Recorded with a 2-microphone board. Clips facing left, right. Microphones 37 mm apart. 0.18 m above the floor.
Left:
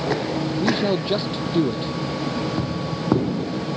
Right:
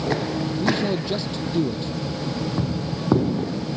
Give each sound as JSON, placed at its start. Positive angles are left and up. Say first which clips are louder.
{"t": 0.6, "sound": "a man speaking", "louder": "left 2 dB", "side_deg": 35}